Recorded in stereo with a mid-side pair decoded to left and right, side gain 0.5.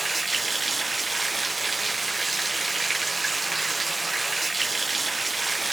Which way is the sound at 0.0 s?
15° right.